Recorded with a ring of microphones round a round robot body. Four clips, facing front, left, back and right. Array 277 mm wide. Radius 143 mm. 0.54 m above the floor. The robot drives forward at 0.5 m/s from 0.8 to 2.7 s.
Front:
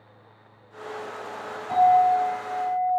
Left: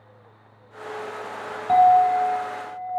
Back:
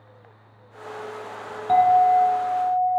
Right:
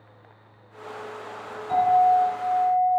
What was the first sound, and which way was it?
A clink, 130° left.